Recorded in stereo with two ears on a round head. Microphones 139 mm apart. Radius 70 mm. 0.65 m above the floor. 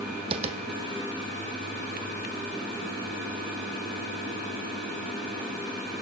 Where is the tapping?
35° right (ahead or behind), 1.4 m.